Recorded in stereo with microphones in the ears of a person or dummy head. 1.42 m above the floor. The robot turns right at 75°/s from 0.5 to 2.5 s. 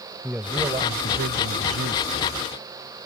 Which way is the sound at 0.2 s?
170° right.